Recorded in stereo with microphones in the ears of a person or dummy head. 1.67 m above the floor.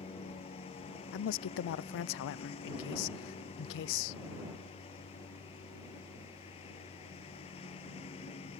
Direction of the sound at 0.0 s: 30° left (ahead or behind).